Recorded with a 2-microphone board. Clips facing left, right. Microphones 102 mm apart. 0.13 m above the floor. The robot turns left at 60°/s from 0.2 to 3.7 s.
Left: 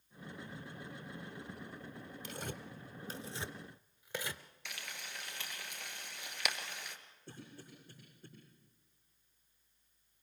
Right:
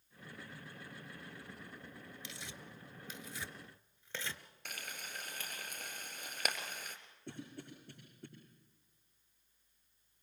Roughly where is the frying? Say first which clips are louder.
Right 1 dB; right.